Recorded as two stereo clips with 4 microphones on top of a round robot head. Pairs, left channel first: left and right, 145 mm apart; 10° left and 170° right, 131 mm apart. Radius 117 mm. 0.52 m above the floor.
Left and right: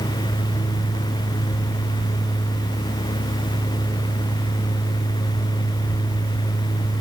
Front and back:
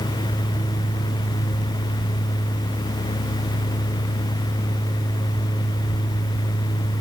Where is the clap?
I don't hear a clap.